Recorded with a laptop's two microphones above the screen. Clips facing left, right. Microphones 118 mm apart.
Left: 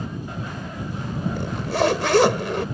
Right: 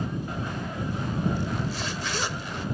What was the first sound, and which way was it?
A zipper, 70° left (ahead or behind).